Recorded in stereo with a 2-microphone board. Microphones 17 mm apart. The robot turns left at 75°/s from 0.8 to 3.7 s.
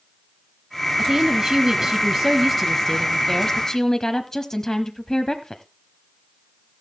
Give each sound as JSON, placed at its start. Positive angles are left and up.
{"t": 1.0, "sound": "a woman speaking", "azimuth_deg": -70, "distance_m": 1.0}